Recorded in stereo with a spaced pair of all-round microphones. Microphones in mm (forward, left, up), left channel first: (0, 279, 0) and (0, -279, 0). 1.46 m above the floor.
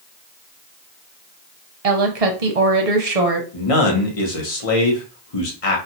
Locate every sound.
1.8 s a woman speaking: 75° right (ahead or behind), 0.9 m
3.5 s a man speaking: 65° left (ahead or behind), 1.0 m